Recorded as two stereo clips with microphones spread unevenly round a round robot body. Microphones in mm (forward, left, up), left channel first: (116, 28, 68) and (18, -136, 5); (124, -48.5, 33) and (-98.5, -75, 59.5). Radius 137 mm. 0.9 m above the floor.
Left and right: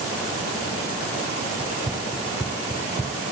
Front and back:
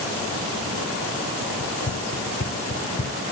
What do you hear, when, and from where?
1.6 s running footsteps: 25° right; by 3.2 s 45° right